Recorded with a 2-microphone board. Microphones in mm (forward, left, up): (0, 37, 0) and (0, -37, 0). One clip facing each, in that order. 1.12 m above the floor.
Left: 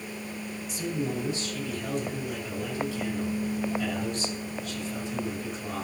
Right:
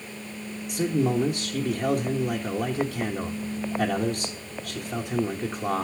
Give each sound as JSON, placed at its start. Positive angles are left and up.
{"t": 0.7, "sound": "a man speaking", "side_deg": -55, "distance_m": 1.2}